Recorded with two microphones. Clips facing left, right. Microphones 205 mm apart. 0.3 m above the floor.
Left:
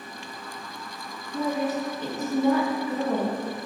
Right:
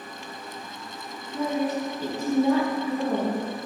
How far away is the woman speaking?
About 1.8 m.